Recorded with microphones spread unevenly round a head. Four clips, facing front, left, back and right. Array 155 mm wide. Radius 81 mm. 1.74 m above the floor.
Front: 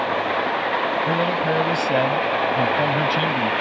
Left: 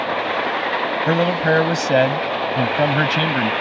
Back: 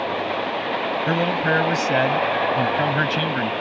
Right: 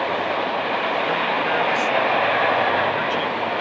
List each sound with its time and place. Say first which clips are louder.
1.1 s a man speaking: left 4 dB, even; 105° left; by 3.5 s 90° left